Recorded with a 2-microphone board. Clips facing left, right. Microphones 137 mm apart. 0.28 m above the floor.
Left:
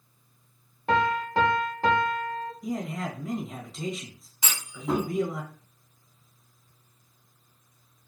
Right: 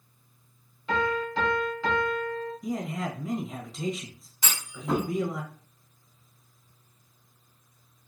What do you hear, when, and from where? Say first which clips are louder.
0.9 s a piano: left 3 dB; 75° left (ahead or behind), 0.8 m
2.6 s a man speaking: left 1 dB; centre (ahead or behind), 1.0 m
4.4 s a clunk: left 1 dB; 15° left (ahead or behind), 2.0 m